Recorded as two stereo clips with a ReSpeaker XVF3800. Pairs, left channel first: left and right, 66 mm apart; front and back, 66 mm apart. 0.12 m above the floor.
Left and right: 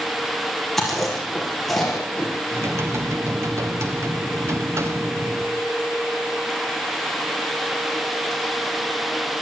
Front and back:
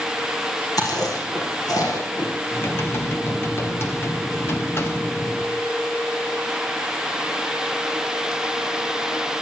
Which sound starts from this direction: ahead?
Chewing, at 0.8 s.